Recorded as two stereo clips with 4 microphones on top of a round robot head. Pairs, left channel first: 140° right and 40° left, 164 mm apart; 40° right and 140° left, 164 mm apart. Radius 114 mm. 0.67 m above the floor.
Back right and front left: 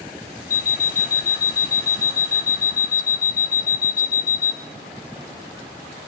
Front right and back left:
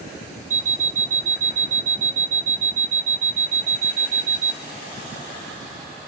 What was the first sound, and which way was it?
An alarm clock, 175° right.